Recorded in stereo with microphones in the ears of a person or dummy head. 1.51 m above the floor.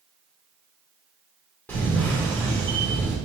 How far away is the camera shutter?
About 1.3 m.